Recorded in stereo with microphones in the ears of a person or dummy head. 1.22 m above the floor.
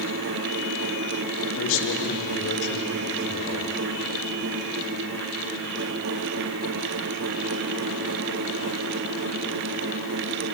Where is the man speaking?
75° left (ahead or behind), 3 m; by 3.7 s 55° left (ahead or behind), 5 m.